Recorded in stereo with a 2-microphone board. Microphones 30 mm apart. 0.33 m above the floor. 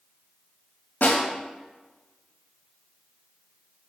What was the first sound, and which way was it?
A snare drum, 70° left (ahead or behind).